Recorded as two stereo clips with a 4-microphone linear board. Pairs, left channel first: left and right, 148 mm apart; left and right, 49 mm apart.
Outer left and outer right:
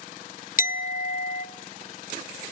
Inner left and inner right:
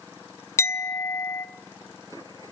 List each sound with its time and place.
0.6 s a clink: 70° left (ahead or behind), 0.8 m